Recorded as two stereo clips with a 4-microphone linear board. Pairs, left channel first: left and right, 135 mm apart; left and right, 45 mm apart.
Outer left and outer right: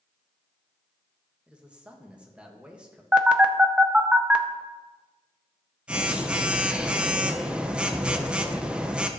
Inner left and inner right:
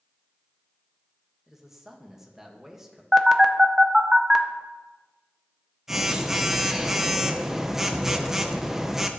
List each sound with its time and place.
1.5 s a man speaking: 10° right (ahead or behind), 1.5 m
3.1 s a phone buzzing: 10° right (ahead or behind), 0.7 m